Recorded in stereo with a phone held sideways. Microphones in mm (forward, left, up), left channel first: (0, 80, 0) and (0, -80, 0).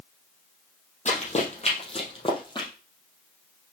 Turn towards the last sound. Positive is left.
turn(degrees=30)  # may be behind; listen again after turning